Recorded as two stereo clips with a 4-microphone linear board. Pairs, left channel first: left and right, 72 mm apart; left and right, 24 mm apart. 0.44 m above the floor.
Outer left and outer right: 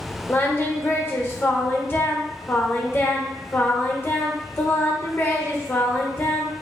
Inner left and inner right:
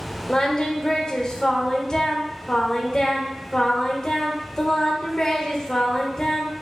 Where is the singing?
35° left (ahead or behind), 1.3 m.